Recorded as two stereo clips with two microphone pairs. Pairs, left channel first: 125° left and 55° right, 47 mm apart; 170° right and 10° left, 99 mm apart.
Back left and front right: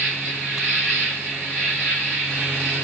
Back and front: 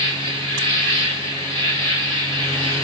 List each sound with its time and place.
0.0 s an insect: 130° right, 2.0 m